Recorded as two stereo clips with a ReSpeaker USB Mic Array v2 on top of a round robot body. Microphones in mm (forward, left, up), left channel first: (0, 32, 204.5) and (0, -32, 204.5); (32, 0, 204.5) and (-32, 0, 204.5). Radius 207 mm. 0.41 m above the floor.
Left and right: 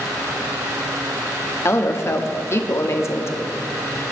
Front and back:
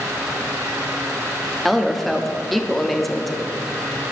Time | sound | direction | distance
1.6 | a woman speaking | 90° left | 1.7 m